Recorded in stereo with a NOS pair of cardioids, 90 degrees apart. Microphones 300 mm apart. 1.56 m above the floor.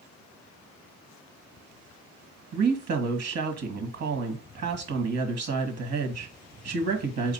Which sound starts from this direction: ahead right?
A woman speaking, at 2.5 s.